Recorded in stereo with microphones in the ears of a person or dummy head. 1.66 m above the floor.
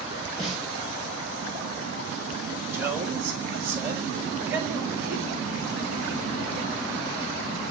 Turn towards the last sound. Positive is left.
turn(degrees=-20)  # may be behind; listen again after turning